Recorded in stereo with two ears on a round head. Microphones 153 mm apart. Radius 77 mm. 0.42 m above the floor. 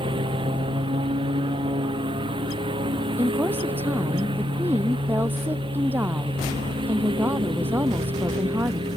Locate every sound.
0.0 s a lawn mower: 30° right (ahead or behind)
3.2 s a woman speaking: 10° right (ahead or behind)